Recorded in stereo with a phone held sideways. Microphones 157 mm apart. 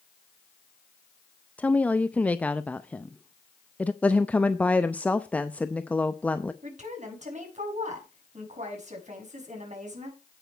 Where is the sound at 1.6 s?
10° left (ahead or behind), 0.5 m.